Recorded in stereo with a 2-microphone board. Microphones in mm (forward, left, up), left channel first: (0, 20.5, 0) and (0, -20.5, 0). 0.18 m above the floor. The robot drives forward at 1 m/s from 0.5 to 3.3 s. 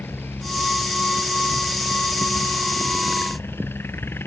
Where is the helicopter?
65° left (ahead or behind).